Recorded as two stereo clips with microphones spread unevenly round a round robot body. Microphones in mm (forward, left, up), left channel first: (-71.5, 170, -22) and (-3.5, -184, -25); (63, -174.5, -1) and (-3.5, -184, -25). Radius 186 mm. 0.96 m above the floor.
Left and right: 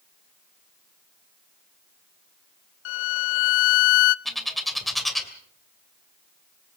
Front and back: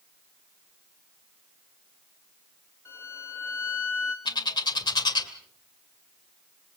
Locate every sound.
2.9 s a violin: 95° left, 0.6 m
4.2 s a bird: 10° left, 2 m